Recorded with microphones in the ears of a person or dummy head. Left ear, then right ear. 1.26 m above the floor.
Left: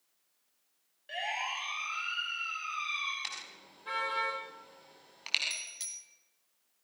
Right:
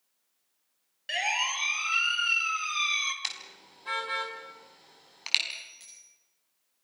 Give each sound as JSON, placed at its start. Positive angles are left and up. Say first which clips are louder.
{"t": 1.1, "sound": "a siren", "louder": "right 7 dB", "side_deg": -70, "distance_m": 4.5}
{"t": 3.2, "sound": "a car horn", "louder": "right 4 dB", "side_deg": -25, "distance_m": 6.0}
{"t": 5.5, "sound": "a bicycle bell", "louder": "left 2 dB", "side_deg": 35, "distance_m": 4.5}